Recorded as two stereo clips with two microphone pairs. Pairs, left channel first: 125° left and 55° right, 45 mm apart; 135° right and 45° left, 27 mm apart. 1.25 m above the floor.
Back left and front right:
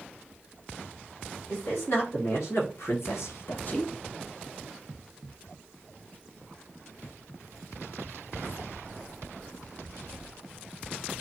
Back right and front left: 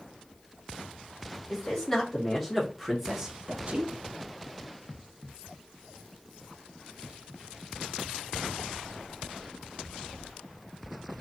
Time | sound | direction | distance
1.5 | a man speaking | 150° left | 2 m